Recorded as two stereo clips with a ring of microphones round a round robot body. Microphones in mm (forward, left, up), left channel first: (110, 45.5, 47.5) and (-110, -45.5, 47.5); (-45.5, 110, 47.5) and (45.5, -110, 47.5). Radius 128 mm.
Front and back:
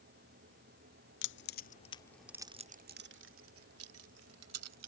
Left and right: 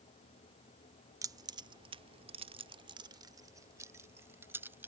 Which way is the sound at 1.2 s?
5° left.